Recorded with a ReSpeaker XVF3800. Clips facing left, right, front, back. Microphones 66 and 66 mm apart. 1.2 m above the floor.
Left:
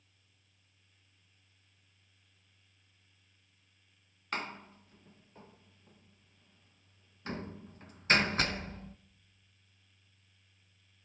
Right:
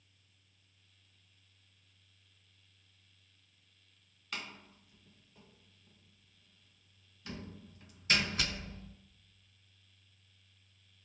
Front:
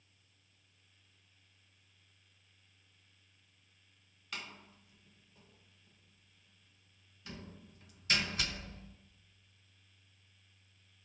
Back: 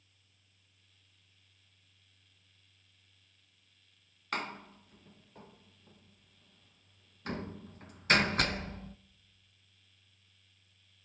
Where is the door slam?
140° left, 0.7 m.